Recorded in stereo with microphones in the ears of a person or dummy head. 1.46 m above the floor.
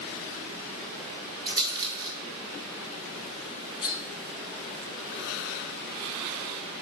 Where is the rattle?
25° right (ahead or behind), 2 m.